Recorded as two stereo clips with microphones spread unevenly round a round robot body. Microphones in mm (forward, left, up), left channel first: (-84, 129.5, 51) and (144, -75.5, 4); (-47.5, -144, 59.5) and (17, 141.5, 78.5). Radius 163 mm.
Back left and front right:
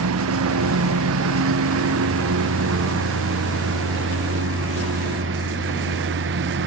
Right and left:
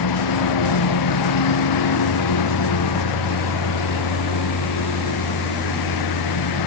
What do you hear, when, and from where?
0.0 s a lawn mower: 90° right; by 6.7 s 100° right